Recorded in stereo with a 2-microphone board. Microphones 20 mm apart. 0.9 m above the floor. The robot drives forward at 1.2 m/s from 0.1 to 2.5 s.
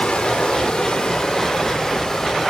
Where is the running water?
75° left (ahead or behind), 2.5 m; by 2.5 s 35° left (ahead or behind), 4 m.